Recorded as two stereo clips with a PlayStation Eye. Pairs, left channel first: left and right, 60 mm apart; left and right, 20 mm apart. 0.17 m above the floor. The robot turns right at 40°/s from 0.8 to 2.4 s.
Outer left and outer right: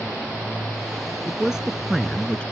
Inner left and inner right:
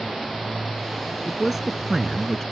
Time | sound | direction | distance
1.2 | a man speaking | 25° right | ?